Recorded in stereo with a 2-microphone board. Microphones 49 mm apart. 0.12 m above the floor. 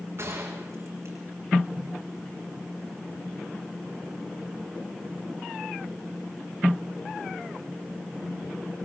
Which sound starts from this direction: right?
A gunshot, at 0.2 s.